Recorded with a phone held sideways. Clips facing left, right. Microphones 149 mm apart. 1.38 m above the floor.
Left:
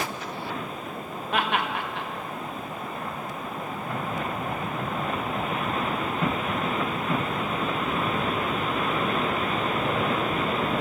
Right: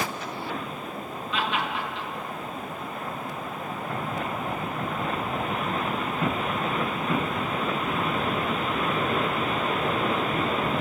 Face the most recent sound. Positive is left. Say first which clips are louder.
# left 2 dB
turn(degrees=55)  # may be behind; listen again after turning